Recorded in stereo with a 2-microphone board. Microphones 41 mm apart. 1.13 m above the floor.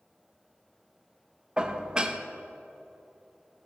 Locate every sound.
1.6 s dishes clattering: 20° right (ahead or behind), 0.5 m